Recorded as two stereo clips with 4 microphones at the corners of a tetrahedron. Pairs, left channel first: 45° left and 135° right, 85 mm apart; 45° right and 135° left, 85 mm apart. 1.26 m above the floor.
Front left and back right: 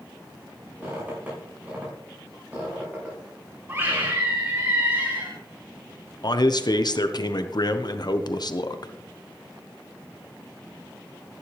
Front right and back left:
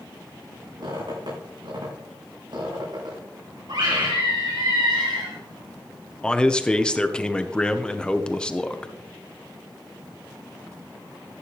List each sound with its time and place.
0.8 s a squeak: 155° left, 7.5 m
3.7 s a scream: 165° left, 3 m
6.2 s a man speaking: 35° left, 0.9 m